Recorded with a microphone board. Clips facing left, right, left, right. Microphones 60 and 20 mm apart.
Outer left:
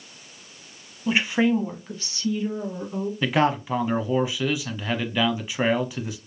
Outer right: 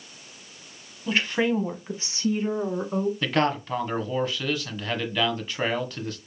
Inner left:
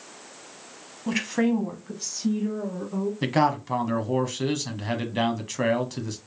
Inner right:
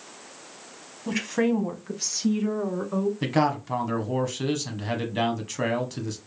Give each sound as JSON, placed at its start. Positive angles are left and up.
{"t": 1.1, "sound": "a woman speaking", "side_deg": 15, "distance_m": 1.0}
{"t": 3.2, "sound": "a man speaking", "side_deg": 10, "distance_m": 1.0}